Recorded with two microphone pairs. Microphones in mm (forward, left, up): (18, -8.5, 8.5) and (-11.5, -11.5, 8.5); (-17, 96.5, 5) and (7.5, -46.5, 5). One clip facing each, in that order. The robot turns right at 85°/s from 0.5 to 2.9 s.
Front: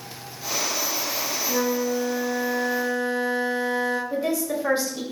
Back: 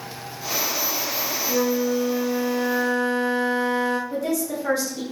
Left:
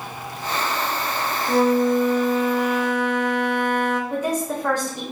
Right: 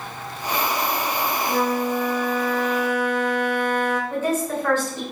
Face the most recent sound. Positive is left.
turn(degrees=40)